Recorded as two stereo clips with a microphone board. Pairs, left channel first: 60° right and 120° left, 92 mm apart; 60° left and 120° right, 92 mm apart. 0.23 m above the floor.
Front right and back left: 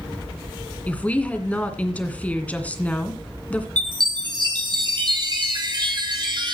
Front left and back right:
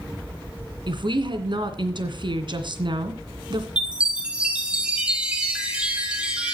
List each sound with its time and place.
0.9 s a woman speaking: 135° right, 2 m
3.8 s a chime: 160° left, 2 m